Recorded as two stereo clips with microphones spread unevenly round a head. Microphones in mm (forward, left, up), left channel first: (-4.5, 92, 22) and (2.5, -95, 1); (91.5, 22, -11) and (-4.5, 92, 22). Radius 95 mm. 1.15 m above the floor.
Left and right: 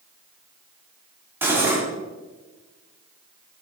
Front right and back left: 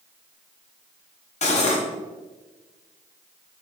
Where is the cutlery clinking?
5° right, 1.5 m.